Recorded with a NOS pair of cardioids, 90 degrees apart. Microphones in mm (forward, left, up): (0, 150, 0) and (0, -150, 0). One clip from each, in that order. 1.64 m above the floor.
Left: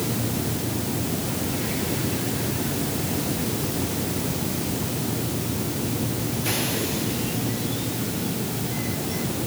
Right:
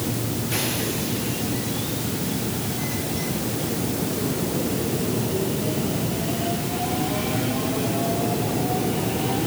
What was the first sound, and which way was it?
Only background noise.